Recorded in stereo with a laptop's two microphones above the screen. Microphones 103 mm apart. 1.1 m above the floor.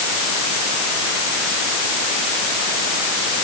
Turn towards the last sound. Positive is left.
No sound to turn to.